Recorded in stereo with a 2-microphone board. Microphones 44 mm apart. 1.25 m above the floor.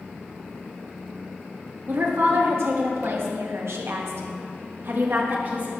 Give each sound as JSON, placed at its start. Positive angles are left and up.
{"t": 1.9, "sound": "a woman speaking", "side_deg": -65, "distance_m": 2.5}